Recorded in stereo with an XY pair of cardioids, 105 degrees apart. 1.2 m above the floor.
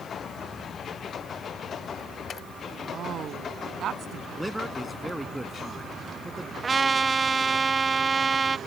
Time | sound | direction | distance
2.9 | a woman speaking | 60° right | ?
4.4 | a man speaking | 5° right | ?
6.6 | a trumpet | 30° right | ?